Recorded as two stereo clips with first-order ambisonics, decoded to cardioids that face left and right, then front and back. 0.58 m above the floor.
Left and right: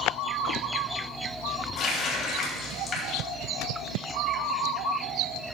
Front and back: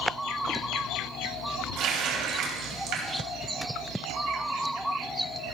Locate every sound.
1.8 s a running tap: 150° left, 2.5 m